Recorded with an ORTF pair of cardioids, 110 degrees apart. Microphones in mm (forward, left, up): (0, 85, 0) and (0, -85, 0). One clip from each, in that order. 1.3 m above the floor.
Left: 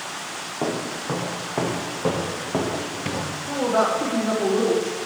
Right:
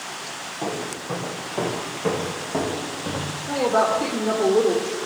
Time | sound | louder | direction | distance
0.6 | footsteps | left 2 dB | 45° left | 4 m
3.5 | a woman speaking | right 1 dB | 5° left | 3 m